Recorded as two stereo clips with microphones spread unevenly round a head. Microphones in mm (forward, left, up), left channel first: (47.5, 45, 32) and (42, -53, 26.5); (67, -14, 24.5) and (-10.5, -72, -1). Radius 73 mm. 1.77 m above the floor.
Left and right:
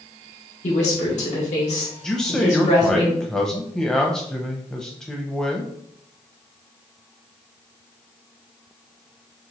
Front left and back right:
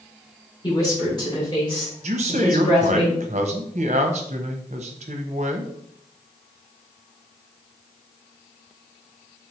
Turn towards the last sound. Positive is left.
turn(degrees=170)